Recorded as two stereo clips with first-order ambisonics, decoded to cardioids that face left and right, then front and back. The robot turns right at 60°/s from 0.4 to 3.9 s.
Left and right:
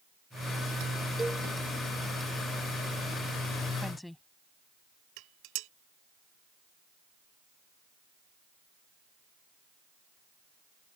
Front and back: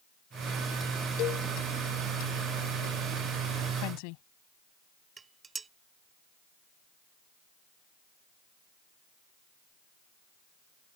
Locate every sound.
1.2 s a cowbell: 10° right; by 1.5 s 5° left
3.8 s a woman speaking: straight ahead; by 4.2 s 5° left
5.2 s dishes clattering: 110° right